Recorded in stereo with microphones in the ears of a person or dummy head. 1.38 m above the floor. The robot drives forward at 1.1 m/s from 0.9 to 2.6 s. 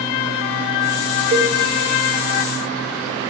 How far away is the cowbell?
About 0.8 m.